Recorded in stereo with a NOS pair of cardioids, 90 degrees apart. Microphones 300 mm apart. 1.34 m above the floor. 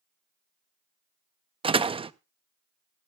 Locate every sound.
1.6 s a door slam: 20° right, 0.6 m